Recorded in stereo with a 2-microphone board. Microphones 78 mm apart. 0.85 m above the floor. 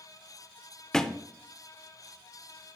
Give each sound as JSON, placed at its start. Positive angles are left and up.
{"t": 0.9, "sound": "a thud", "side_deg": 5, "distance_m": 0.6}